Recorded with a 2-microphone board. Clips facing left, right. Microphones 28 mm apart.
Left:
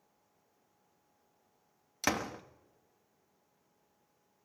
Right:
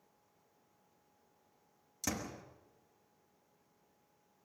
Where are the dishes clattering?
No dishes clattering in this recording.